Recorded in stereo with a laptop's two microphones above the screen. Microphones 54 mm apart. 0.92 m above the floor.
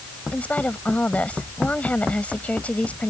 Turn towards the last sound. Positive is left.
turn(degrees=25)  # may be behind; listen again after turning